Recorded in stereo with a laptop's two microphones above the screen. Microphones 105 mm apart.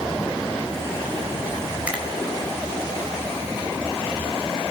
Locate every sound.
1.9 s a finger snap: 15° right (ahead or behind), 4 m